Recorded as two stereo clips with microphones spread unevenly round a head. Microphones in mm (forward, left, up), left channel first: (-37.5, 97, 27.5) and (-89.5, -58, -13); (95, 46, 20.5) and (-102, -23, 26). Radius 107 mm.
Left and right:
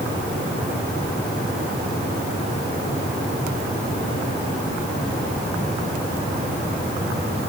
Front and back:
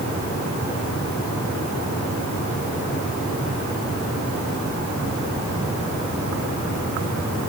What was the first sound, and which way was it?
Only background noise.